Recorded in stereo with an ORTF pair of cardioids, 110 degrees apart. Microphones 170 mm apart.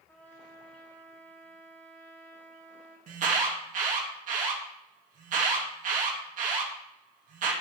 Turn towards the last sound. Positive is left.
turn(degrees=-50)